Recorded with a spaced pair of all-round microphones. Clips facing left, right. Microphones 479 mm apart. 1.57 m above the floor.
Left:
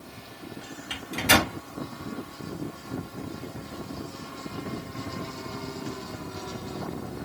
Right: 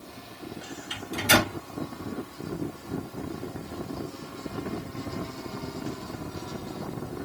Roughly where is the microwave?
Left.